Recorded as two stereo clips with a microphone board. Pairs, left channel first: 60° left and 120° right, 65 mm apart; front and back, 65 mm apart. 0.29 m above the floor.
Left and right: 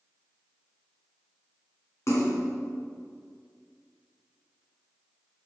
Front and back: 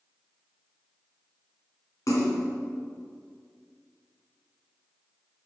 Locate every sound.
2.1 s a splash: 25° left, 3 m